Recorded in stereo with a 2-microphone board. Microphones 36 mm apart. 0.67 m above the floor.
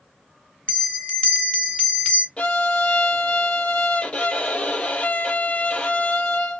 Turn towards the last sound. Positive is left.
turn(degrees=30)  # may be behind; listen again after turning